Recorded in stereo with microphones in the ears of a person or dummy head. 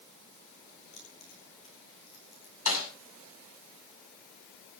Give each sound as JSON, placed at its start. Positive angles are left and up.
{"t": 0.9, "sound": "keys jangling", "side_deg": 40, "distance_m": 10.0}
{"t": 2.7, "sound": "a snare drum", "side_deg": 50, "distance_m": 7.5}